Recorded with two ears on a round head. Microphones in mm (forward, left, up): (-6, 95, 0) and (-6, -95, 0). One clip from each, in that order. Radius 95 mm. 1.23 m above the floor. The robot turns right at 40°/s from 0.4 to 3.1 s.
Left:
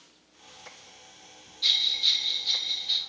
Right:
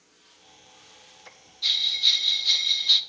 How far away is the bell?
About 1.2 m.